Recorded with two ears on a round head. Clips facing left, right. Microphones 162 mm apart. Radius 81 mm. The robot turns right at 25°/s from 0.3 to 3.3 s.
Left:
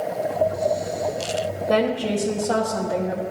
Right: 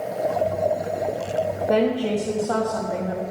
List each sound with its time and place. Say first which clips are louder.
1.7 s a woman speaking: even; 5° right, 1.2 m; by 3.2 s 35° left, 1.2 m